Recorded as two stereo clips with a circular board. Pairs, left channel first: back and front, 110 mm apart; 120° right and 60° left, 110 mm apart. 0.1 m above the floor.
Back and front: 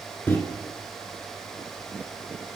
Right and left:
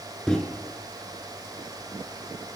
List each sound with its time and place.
0.3 s a microwave: 170° left, 0.9 m